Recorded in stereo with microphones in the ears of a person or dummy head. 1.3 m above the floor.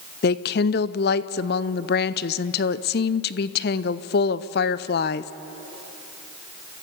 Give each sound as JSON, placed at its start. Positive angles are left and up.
{"t": 0.2, "sound": "a woman speaking", "side_deg": 50, "distance_m": 0.6}